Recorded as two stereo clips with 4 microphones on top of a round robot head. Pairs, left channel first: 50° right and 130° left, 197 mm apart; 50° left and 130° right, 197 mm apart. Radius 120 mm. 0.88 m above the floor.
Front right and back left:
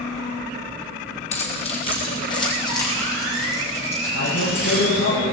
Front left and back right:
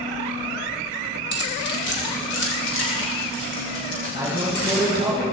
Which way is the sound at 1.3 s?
10° left.